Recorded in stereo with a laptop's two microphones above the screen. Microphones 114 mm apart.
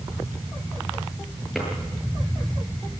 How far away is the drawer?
About 8.5 m.